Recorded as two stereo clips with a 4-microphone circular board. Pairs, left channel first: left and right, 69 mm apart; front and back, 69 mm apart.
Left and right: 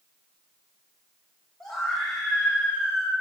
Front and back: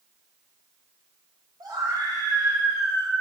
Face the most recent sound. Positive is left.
turn(degrees=165)